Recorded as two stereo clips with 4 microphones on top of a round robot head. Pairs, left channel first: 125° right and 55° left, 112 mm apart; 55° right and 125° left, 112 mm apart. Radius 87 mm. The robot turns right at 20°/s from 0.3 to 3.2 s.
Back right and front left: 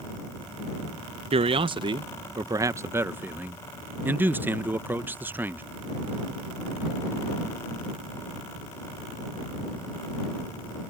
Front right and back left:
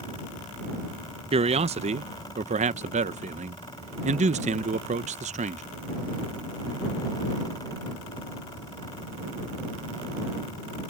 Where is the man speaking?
90° left; by 5.6 s 130° left.